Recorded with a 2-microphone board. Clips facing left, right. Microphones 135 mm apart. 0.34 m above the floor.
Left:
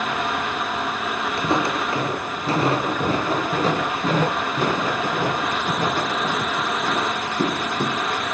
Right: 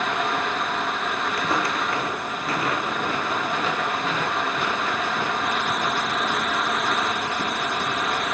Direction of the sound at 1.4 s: 25° left (ahead or behind).